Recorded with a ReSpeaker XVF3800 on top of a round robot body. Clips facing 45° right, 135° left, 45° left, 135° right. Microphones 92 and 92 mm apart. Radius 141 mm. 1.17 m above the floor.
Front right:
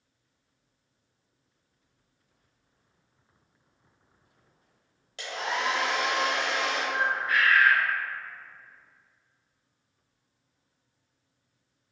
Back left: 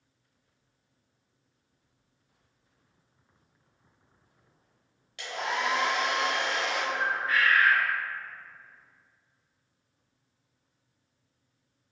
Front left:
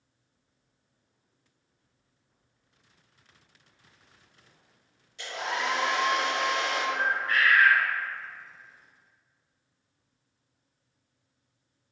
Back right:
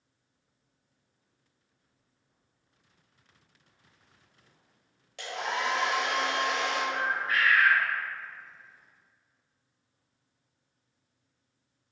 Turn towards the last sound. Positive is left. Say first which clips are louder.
# front right 3 dB, front left 2 dB
turn(degrees=80)